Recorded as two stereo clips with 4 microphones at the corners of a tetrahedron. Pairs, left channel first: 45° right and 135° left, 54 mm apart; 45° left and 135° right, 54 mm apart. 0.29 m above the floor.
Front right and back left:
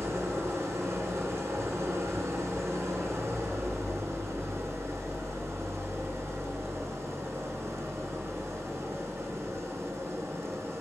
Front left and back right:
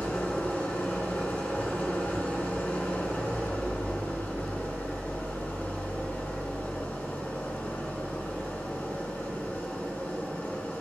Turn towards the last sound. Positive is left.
turn(degrees=105)